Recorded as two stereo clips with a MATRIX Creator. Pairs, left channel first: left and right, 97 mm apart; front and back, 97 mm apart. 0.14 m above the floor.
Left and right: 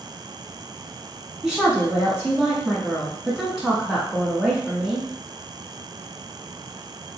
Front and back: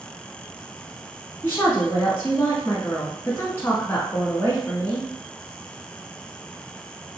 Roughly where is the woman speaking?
Ahead.